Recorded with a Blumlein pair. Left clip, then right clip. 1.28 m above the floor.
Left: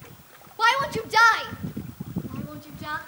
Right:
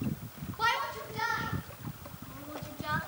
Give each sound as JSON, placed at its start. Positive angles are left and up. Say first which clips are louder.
{"t": 0.6, "sound": "a shout", "louder": "left 9 dB", "azimuth_deg": 20, "distance_m": 2.0}